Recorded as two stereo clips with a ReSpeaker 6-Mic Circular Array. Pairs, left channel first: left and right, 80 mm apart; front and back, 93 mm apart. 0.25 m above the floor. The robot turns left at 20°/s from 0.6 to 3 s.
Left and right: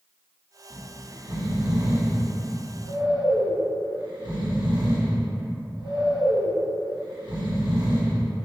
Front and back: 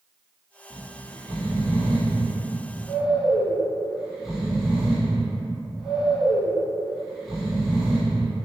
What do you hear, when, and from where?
0.7 s snoring: 50° right, 1.3 m; by 8.3 s 95° right, 1.3 m